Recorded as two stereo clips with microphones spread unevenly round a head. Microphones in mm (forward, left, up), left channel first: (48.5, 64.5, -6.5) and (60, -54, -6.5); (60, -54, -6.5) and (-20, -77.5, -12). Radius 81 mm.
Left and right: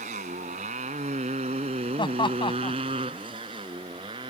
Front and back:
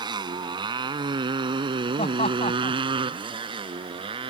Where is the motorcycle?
130° right; by 4.3 s 150° right.